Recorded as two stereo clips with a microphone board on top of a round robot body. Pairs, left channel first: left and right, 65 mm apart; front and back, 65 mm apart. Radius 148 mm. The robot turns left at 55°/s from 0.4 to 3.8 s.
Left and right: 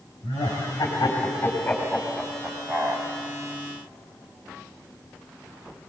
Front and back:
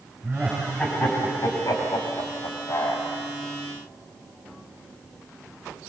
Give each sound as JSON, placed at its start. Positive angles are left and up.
{"t": 0.2, "sound": "laughter", "azimuth_deg": 95, "distance_m": 5.0}